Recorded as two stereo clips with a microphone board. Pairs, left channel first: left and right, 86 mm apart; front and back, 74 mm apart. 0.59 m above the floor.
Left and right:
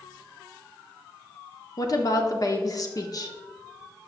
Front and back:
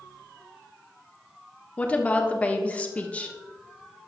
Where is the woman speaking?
65° left, 1.1 m.